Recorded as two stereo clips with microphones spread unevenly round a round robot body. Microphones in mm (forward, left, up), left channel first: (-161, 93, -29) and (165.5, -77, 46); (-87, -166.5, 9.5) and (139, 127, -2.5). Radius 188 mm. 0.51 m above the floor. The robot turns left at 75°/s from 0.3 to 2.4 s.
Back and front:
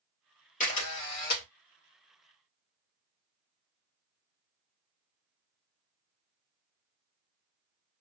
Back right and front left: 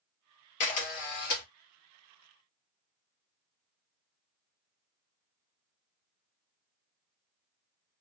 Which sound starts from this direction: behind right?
A camera shutter, at 0.6 s.